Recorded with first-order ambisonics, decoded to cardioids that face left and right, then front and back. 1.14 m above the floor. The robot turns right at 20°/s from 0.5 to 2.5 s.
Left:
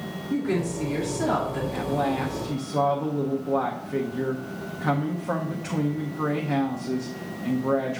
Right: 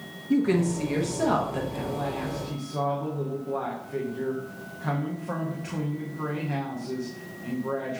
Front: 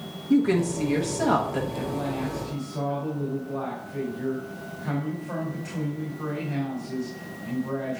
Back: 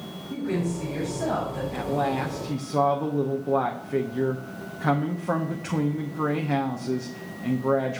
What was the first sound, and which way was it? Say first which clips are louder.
A woman speaking: right 3 dB, front 7 dB; 50° right.